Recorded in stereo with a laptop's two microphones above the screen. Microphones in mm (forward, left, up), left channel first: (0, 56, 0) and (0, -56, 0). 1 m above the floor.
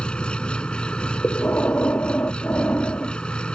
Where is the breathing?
20° left (ahead or behind).